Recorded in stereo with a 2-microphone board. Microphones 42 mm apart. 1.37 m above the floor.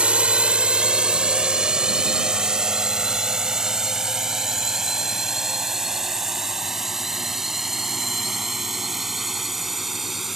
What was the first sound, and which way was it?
A drone, 25° right (ahead or behind).